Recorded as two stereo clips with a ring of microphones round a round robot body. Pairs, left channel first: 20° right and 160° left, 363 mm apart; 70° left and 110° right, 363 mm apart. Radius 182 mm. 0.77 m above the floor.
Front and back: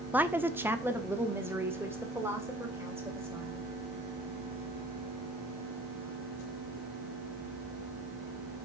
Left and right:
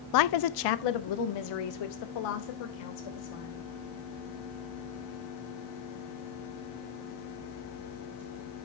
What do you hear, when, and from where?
0.1 s a woman speaking: 75° left, 0.5 m